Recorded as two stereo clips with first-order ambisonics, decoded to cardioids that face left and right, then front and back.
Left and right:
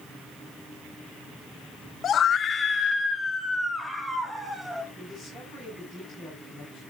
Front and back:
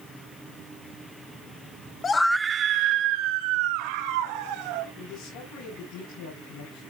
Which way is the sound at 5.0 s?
15° right.